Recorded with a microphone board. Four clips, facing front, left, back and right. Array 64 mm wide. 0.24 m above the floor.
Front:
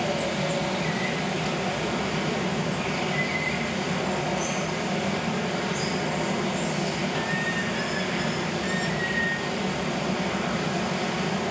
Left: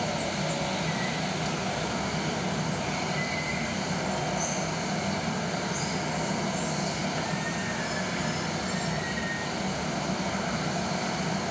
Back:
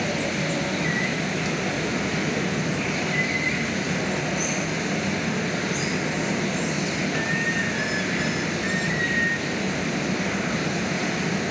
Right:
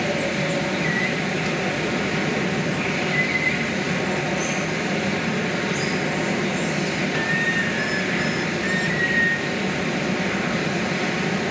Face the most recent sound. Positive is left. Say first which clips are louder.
# right 7 dB, back 1 dB
turn(degrees=-110)